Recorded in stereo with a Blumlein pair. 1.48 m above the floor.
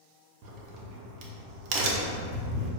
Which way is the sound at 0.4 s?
40° right.